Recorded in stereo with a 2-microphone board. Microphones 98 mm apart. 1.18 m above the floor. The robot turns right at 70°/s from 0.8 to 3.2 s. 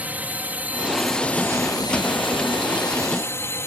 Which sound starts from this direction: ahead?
A drone, at 0.0 s.